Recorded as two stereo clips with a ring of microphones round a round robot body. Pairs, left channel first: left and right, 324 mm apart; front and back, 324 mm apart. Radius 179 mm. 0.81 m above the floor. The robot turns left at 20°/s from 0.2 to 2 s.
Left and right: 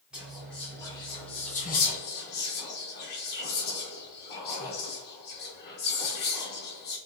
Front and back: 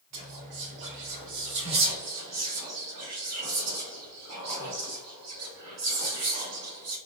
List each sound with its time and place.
0.1 s whispering: 175° right, 1.0 m; by 7.0 s 150° left, 1.0 m